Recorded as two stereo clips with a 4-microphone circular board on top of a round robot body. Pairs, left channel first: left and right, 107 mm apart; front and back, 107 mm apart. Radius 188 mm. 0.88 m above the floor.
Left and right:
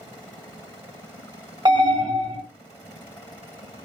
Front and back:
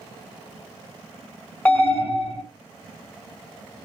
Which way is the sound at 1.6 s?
65° right.